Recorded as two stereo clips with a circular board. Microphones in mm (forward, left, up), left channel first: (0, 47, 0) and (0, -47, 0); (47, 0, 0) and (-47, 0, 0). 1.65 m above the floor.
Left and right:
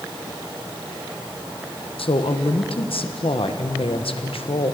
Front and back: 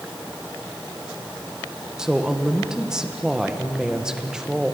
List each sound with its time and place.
2.0 s a woman speaking: 95° left, 1.3 m